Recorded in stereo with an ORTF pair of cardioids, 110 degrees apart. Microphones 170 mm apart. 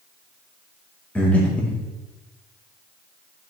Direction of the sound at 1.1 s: 10° left.